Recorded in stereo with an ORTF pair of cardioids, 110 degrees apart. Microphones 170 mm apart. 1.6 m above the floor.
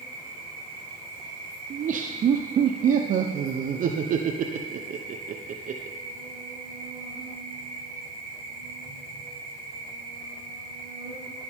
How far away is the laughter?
About 0.9 m.